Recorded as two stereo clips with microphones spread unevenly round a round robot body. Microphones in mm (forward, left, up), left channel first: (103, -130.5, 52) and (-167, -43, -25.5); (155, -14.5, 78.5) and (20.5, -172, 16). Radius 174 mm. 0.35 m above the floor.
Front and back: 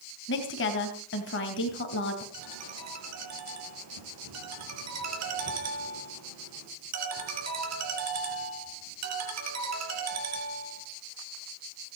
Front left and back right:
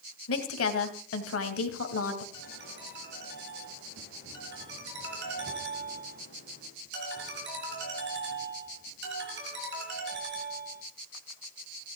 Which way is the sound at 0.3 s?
45° left.